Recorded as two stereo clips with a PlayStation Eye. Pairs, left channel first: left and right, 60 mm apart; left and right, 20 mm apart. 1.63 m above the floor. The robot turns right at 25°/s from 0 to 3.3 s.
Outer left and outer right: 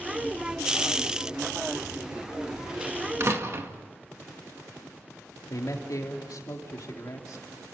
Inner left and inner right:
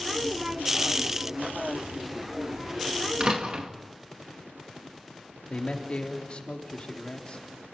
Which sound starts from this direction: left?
A man speaking, at 5.5 s.